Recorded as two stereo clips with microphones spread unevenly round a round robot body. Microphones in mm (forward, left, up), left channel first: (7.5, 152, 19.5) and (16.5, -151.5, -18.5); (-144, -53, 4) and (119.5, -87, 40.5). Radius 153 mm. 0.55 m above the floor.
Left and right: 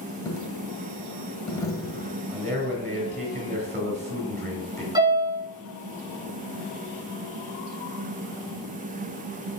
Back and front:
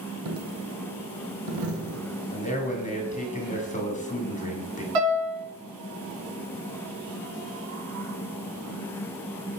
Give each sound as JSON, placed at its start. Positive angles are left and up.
{"t": 0.2, "sound": "a dropped coin", "azimuth_deg": 10, "distance_m": 1.1}
{"t": 2.3, "sound": "a man speaking", "azimuth_deg": -145, "distance_m": 1.7}
{"t": 5.0, "sound": "a piano", "azimuth_deg": -10, "distance_m": 2.5}